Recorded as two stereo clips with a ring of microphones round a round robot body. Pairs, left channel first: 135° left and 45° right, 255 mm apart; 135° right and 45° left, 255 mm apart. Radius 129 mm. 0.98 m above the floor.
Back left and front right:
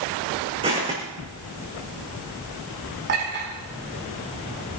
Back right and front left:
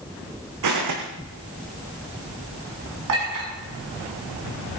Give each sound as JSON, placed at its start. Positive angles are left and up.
{"t": 0.6, "sound": "footsteps", "azimuth_deg": 25, "distance_m": 4.0}
{"t": 3.1, "sound": "a clink", "azimuth_deg": 10, "distance_m": 7.5}